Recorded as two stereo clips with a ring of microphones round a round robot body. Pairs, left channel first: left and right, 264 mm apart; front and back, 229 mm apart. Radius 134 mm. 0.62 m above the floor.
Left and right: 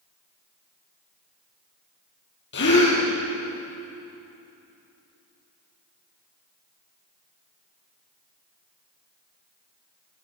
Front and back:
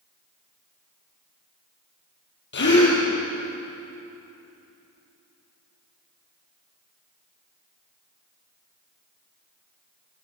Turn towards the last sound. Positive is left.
turn(degrees=40)